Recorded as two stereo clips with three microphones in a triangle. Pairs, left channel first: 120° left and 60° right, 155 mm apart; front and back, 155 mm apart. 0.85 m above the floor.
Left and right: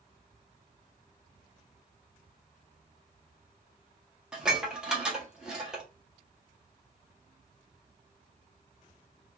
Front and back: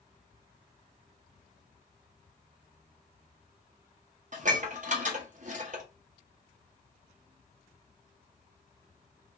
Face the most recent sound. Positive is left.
turn(degrees=-145)